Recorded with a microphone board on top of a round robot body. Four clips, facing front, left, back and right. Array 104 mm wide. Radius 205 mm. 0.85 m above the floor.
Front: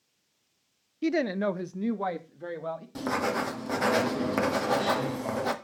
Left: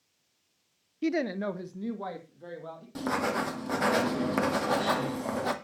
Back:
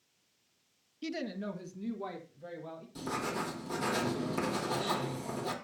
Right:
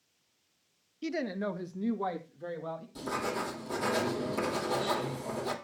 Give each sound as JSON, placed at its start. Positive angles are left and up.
{"t": 1.0, "sound": "a woman speaking", "azimuth_deg": 40, "distance_m": 0.8}
{"t": 3.0, "sound": "writing", "azimuth_deg": 45, "distance_m": 2.0}